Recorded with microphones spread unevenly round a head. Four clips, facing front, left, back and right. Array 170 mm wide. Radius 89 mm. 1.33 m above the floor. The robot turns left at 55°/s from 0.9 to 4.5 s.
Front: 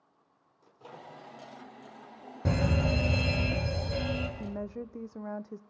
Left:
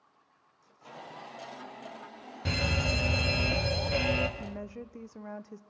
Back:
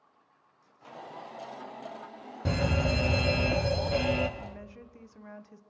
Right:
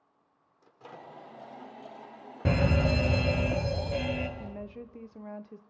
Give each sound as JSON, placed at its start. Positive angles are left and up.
{"t": 0.6, "sound": "a microwave", "azimuth_deg": -50, "distance_m": 3.5}
{"t": 2.5, "sound": "a fire alarm", "azimuth_deg": -100, "distance_m": 1.3}
{"t": 4.4, "sound": "a woman speaking", "azimuth_deg": 10, "distance_m": 0.8}